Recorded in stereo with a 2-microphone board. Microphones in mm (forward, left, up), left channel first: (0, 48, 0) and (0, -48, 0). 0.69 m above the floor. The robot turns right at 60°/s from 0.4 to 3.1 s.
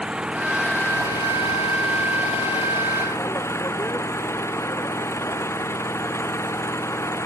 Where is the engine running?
10° right; by 7.3 s 155° left.